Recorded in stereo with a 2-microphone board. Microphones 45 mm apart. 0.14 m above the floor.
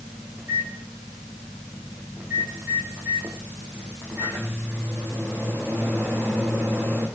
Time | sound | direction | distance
0.4 | a microwave | 55° right (ahead or behind) | 5 m